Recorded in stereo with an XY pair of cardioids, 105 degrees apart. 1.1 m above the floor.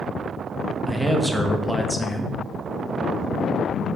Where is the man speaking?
10° right, 1.0 m.